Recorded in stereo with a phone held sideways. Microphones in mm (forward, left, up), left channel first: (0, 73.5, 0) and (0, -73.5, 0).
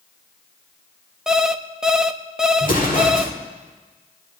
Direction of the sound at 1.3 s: 5° right (ahead or behind).